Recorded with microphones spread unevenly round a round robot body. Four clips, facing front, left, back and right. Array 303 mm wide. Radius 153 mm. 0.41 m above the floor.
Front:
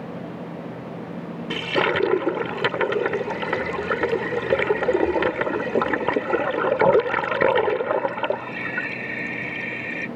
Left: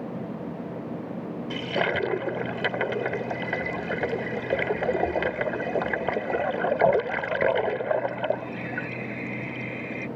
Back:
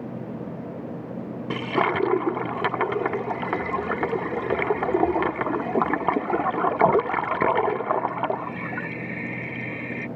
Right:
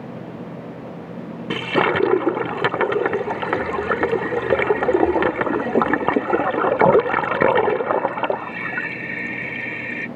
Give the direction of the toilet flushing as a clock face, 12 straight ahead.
3 o'clock.